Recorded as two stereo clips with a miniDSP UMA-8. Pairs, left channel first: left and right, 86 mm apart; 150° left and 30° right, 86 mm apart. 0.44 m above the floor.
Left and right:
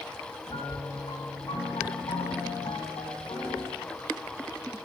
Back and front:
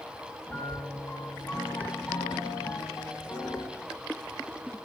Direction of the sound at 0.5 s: 85° left.